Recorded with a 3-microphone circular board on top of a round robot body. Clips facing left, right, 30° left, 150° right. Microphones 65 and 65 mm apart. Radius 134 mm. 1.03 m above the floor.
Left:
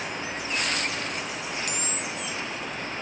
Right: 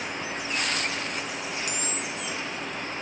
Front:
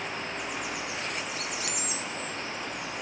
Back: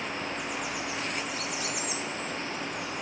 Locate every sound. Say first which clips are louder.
1.7 s a camera shutter: even, back 1 dB; 50° left, 0.7 m